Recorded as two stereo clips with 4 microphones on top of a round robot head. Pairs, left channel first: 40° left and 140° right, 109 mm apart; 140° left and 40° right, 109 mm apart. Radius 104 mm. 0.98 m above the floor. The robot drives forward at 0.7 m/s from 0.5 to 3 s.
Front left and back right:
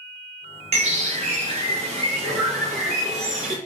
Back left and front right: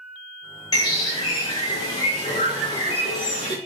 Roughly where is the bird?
Behind.